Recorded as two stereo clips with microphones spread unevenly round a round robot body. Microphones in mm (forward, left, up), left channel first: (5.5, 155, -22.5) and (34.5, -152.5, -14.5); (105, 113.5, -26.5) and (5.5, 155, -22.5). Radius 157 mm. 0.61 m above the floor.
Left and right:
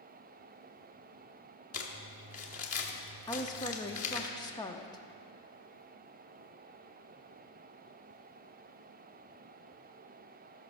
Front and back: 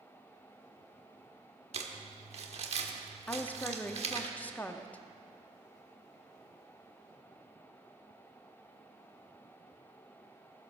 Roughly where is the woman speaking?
Ahead left.